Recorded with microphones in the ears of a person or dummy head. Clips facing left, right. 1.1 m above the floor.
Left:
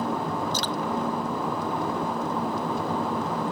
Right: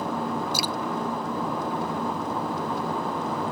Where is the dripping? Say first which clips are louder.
Even; 10° right (ahead or behind).